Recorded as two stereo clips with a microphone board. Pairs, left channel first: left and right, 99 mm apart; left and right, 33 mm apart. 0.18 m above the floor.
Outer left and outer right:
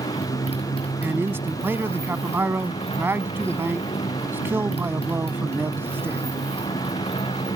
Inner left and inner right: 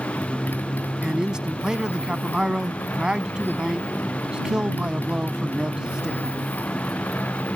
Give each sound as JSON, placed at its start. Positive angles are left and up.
{"t": 0.0, "sound": "a motorcycle", "side_deg": 80}
{"t": 1.0, "sound": "a man speaking", "side_deg": -25}